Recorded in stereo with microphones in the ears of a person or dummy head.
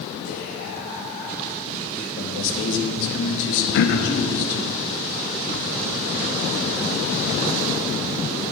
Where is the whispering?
55° left (ahead or behind), 3.5 m.